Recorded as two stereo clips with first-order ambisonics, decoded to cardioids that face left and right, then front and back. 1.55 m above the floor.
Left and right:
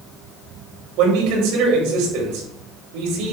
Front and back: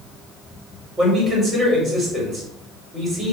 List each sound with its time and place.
1.0 s a man speaking: 110° right, 5.5 m